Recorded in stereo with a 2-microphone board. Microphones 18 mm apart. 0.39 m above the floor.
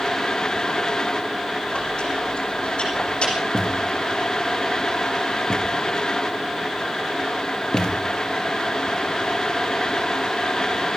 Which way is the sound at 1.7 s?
70° left (ahead or behind).